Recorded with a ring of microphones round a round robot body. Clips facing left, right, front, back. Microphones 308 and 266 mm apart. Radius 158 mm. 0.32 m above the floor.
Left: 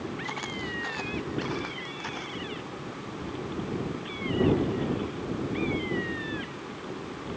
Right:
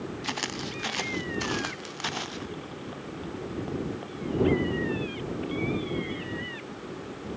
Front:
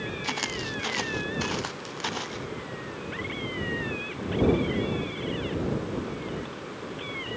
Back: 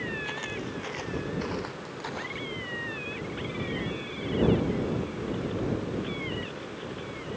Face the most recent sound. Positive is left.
turn(degrees=-60)